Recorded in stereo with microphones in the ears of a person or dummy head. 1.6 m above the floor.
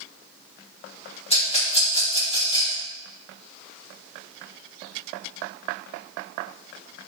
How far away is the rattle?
About 2.5 m.